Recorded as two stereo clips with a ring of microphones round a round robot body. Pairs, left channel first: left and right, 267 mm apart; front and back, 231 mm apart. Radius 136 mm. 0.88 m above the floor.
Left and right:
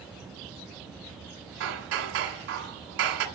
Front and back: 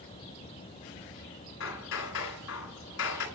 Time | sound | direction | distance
1.6 | hammering | 50° right | 2.5 m